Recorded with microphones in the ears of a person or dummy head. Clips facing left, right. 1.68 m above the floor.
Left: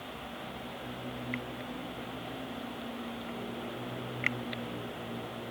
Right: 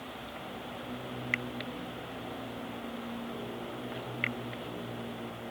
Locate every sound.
Only background noise.